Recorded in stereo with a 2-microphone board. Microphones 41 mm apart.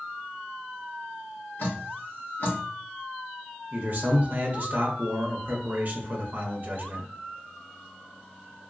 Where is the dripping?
60° left (ahead or behind), 1.3 m.